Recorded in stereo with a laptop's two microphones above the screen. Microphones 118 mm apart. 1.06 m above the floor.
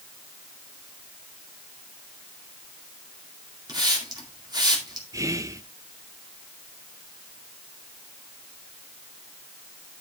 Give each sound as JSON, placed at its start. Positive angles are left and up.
{"t": 3.7, "sound": "a hiss", "side_deg": -35, "distance_m": 2.0}
{"t": 5.1, "sound": "whispering", "side_deg": -25, "distance_m": 0.5}